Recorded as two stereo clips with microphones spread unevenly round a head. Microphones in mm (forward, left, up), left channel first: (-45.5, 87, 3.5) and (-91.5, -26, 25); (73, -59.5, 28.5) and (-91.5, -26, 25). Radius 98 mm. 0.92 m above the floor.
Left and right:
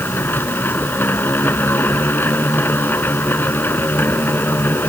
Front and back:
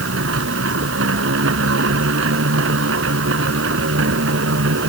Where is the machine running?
145° left.